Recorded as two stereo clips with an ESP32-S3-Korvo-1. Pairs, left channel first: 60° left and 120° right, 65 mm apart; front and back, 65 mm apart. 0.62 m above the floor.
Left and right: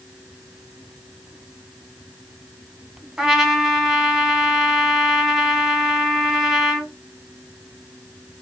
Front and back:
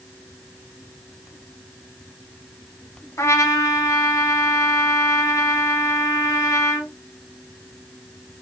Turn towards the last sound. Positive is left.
turn(degrees=-35)